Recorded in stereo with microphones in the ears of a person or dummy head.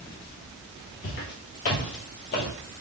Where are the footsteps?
50° left (ahead or behind), 2 m; by 2.5 s 55° left (ahead or behind), 2.5 m.